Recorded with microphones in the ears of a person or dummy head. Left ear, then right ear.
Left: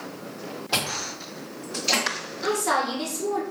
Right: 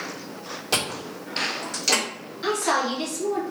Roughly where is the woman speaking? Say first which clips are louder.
Right 1 dB; centre.